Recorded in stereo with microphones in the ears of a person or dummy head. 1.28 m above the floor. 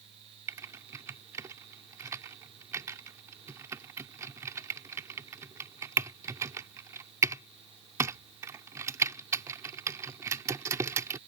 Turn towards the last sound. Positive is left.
turn(degrees=-20)  # may be behind; listen again after turning